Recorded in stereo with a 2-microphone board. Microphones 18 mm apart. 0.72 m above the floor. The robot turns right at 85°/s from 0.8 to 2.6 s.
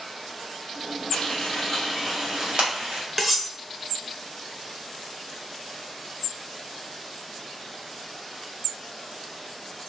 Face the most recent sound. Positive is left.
turn(degrees=-15)  # may be behind; listen again after turning